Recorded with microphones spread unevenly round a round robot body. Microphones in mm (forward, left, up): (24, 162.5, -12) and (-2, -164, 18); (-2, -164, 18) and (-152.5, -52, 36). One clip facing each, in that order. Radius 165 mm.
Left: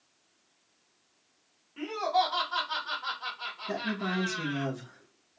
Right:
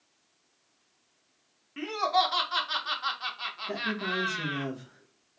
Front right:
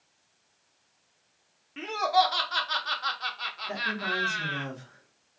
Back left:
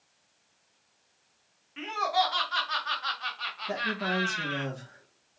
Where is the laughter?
60° right, 1.1 m.